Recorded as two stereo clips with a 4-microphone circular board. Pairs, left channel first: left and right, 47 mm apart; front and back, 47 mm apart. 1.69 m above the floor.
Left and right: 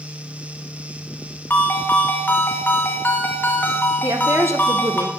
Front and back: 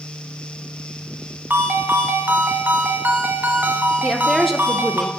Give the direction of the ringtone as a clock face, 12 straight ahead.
7 o'clock.